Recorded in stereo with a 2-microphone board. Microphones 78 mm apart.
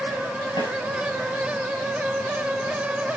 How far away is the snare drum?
About 8 m.